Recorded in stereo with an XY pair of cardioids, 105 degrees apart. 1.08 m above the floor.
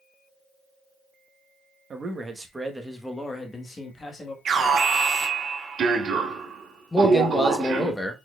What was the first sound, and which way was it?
A man speaking, 30° right.